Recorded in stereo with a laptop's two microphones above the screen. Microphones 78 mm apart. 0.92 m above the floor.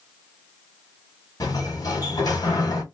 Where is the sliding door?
55° left (ahead or behind), 1.7 m.